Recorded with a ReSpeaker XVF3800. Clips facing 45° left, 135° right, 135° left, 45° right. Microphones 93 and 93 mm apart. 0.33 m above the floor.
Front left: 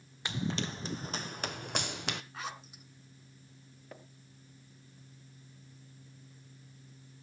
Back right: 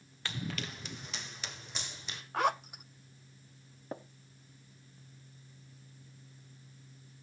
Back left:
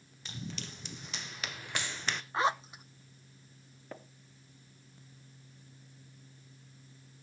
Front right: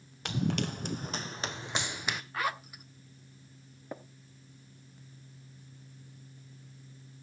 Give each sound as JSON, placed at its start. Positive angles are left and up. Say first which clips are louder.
{"t": 0.2, "sound": "running footsteps", "louder": "front left 5 dB, front right 12 dB", "azimuth_deg": -25, "distance_m": 1.1}
{"t": 2.3, "sound": "a zipper", "louder": "back right 12 dB, back left 6 dB", "azimuth_deg": -160, "distance_m": 0.5}
{"t": 3.9, "sound": "tapping", "louder": "back right 9 dB, front right 4 dB", "azimuth_deg": -110, "distance_m": 0.8}